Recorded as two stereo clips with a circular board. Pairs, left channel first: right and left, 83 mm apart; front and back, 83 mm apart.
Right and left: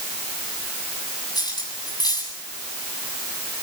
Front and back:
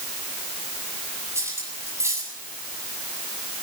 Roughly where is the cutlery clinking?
Behind right.